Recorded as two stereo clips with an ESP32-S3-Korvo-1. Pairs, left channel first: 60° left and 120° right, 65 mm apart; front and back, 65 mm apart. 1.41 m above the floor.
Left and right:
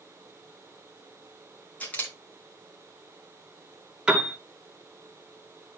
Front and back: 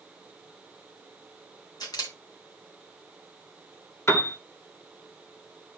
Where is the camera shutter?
5° right, 3 m.